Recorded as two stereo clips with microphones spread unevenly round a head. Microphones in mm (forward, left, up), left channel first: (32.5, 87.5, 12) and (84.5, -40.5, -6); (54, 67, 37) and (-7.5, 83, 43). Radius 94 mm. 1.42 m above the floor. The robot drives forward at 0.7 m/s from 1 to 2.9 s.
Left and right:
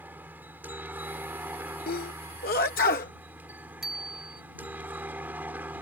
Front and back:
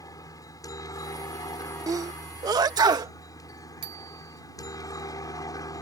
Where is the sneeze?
135° left; by 3.1 s 155° left.